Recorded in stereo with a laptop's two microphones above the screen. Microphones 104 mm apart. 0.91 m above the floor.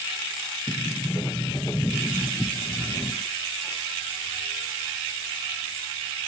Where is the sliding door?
25° left (ahead or behind), 0.6 m.